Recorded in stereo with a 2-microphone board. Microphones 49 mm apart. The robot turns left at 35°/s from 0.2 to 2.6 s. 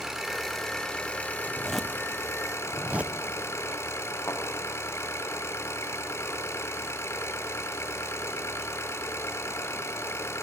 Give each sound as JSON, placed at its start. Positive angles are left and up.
{"t": 0.0, "sound": "an engine running", "azimuth_deg": -170, "distance_m": 4.0}
{"t": 1.5, "sound": "a zipper", "side_deg": 15, "distance_m": 1.0}
{"t": 4.3, "sound": "a thud", "side_deg": 60, "distance_m": 7.0}